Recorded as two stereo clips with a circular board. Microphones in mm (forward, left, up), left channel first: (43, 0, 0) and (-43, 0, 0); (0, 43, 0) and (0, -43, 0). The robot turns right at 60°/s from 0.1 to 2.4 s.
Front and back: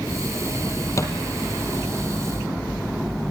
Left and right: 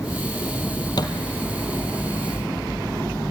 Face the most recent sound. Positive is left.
turn(degrees=140)